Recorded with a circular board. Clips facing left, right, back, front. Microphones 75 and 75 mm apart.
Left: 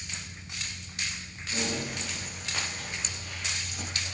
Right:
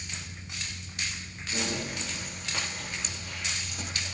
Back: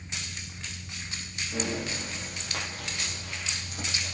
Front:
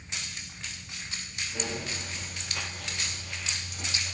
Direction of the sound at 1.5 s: Straight behind.